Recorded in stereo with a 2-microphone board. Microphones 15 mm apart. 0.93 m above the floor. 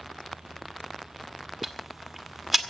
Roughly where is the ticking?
Centre.